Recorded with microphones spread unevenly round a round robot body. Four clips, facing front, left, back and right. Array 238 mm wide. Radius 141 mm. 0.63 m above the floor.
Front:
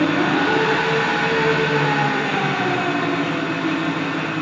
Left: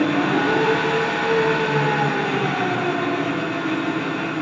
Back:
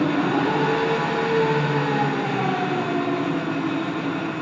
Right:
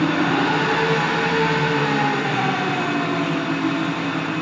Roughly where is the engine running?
Behind right.